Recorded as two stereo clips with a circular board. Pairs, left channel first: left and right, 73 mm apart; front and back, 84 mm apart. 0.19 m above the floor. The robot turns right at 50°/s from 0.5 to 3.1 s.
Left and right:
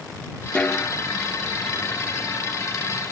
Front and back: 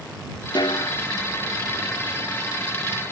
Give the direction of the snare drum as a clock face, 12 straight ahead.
12 o'clock.